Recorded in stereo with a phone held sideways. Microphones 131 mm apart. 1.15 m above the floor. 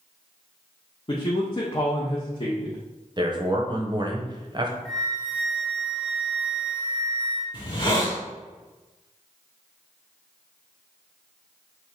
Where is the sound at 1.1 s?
40° left (ahead or behind), 0.6 m.